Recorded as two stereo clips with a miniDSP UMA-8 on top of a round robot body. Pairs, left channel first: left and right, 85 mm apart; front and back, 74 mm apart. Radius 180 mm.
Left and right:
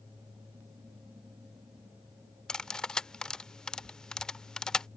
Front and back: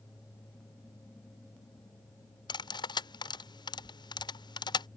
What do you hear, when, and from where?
2.5 s cutlery clinking: 10° left